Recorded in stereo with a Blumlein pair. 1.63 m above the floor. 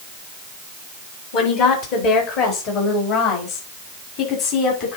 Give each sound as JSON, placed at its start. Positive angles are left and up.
{"t": 1.3, "sound": "a woman speaking", "azimuth_deg": 45, "distance_m": 4.0}